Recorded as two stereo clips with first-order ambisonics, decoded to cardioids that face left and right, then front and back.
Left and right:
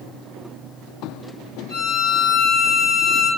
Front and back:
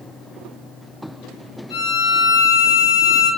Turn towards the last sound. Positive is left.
turn(degrees=20)